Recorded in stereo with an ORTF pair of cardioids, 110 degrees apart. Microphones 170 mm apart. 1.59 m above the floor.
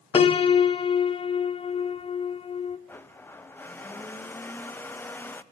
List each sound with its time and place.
0.1 s a piano: 35° left, 0.6 m
2.9 s a blender: 10° left, 0.6 m